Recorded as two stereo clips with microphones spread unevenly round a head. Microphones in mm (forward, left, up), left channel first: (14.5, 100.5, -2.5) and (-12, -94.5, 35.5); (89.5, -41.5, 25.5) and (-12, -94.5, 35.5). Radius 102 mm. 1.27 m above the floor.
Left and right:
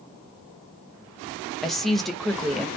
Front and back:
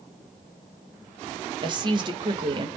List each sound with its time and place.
1.6 s a woman speaking: 160° left, 0.6 m